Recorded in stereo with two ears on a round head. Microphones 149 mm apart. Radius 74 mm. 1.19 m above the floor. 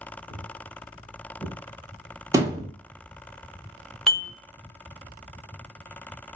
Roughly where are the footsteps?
Left.